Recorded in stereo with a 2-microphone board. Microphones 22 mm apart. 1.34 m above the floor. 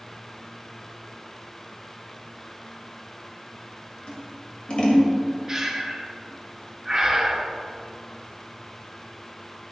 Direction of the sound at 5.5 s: 15° right (ahead or behind).